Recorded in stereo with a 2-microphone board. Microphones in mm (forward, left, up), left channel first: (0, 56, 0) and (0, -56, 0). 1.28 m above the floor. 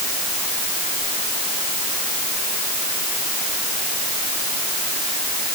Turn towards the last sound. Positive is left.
No sound to turn to.